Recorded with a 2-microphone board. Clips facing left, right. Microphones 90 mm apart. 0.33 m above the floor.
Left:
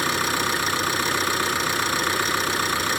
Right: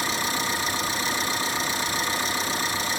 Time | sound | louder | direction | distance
0.0 | an engine running | left 4 dB | 70° left (ahead or behind) | 1.2 m